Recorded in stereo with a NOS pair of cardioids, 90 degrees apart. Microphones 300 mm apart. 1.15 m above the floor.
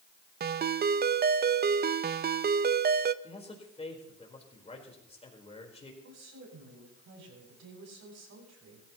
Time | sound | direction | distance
0.4 | a ringtone | 35° right | 0.5 m
3.2 | a man speaking | 20° left | 4.5 m
6.0 | a woman speaking | 60° right | 7.5 m